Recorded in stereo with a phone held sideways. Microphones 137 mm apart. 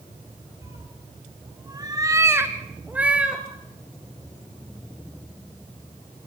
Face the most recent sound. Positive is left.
turn(degrees=-5)  # may be behind; listen again after turning